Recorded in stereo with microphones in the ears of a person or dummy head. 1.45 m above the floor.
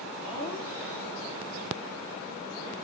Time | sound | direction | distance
0.2 | laughter | 5° left (ahead or behind) | 3 m